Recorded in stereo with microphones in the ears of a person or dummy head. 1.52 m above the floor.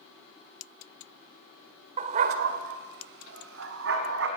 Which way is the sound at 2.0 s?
35° right (ahead or behind).